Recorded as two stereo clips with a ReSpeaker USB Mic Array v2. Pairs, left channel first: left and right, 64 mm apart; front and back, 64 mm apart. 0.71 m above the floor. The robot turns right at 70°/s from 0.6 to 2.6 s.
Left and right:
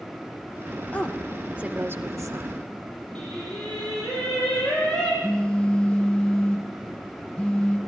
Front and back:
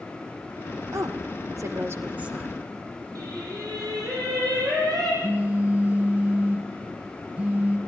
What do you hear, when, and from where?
0.9 s a woman speaking: 155° left, 2 m; by 2.5 s 95° right, 2 m
3.1 s singing: 165° left, 9 m
5.2 s a phone buzzing: 150° left, 1.0 m